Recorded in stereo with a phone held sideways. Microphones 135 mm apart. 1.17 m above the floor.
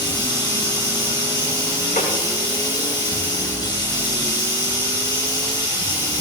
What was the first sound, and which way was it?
Running water, 30° left (ahead or behind).